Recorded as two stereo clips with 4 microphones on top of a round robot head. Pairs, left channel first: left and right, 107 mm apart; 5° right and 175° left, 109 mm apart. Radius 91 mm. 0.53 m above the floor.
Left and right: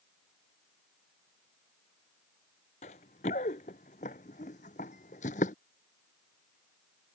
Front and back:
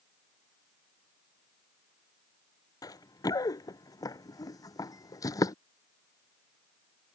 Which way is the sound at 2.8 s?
55° left.